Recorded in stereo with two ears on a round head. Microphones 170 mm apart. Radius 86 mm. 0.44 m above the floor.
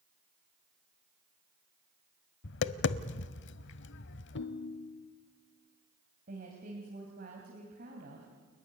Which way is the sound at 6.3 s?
45° right (ahead or behind).